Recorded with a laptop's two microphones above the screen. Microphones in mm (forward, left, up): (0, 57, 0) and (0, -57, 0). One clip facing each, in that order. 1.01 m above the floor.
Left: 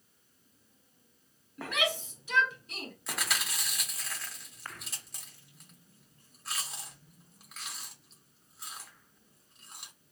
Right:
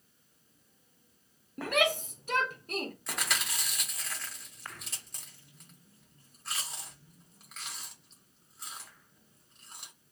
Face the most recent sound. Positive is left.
turn(degrees=5)  # may be behind; listen again after turning